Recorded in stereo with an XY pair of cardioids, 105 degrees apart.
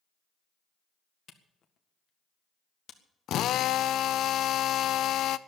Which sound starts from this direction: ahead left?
A camera shutter, at 1.3 s.